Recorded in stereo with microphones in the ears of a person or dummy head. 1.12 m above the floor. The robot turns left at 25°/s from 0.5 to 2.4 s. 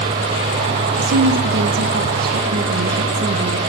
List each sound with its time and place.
1.0 s a woman speaking: 100° right, 1.0 m; by 3.6 s 135° right, 1.0 m